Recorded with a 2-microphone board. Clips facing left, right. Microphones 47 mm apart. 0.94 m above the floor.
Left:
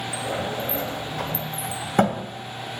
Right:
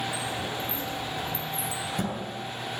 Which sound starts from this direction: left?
A sliding door, at 0.1 s.